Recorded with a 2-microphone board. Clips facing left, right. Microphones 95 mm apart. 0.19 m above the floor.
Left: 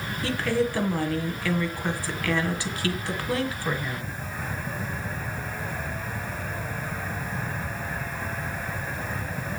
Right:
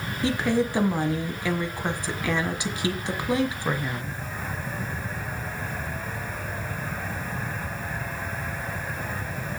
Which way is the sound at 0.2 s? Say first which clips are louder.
Right 2 dB; 20° right (ahead or behind).